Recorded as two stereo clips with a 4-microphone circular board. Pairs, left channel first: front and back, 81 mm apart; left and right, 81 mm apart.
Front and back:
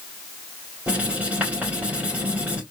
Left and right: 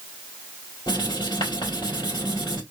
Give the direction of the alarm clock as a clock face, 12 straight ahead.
I don't hear an alarm clock.